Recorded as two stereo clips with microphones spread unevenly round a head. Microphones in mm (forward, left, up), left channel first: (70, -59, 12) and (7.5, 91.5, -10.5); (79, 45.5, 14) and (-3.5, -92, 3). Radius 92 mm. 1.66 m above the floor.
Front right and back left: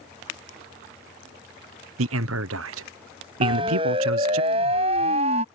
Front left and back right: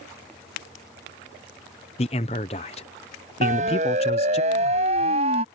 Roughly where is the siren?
Behind.